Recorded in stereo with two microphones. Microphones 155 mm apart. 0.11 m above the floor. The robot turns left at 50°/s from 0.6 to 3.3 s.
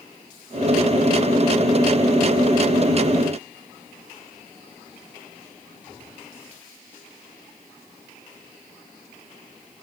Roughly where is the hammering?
No hammering in this recording.